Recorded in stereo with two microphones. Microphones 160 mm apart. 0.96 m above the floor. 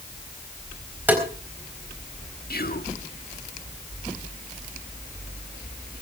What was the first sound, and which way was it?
Tapping, 10° right (ahead or behind).